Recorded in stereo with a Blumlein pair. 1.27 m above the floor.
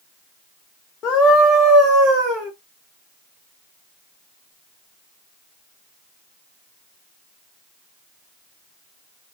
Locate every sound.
1.0 s a scream: 25° left, 0.8 m; by 2.5 s 40° right, 1.6 m